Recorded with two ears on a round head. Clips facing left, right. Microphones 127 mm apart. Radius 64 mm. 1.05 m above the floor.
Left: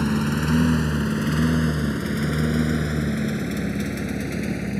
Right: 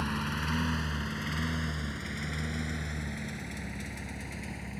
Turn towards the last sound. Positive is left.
turn(degrees=80)